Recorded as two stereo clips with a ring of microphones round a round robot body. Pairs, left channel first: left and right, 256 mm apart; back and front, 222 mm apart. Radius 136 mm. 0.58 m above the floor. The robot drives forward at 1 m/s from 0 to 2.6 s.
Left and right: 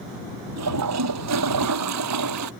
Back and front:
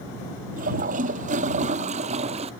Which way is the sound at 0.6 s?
60° right.